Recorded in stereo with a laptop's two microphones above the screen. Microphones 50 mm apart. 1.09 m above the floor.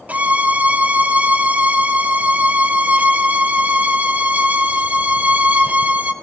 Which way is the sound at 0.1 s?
30° right (ahead or behind).